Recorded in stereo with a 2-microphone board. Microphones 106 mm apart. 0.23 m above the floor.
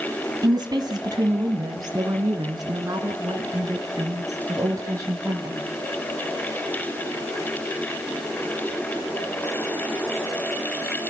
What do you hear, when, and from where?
0.4 s a woman speaking: 40° right (ahead or behind), 1.8 m; by 5.6 s 30° right (ahead or behind), 4.5 m